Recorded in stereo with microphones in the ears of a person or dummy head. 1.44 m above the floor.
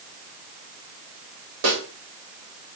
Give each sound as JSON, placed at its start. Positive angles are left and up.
{"t": 1.6, "sound": "a snare drum", "side_deg": -70, "distance_m": 1.4}